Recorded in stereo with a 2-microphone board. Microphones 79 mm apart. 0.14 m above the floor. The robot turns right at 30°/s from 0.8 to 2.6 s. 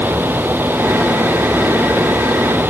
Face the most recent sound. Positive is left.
No sound to turn to.